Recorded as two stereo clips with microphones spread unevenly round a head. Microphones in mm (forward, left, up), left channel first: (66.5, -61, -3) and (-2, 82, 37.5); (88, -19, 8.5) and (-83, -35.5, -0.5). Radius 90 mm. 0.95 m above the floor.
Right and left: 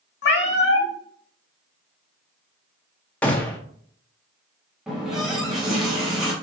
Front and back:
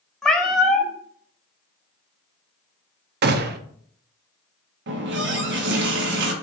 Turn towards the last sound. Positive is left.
turn(degrees=-155)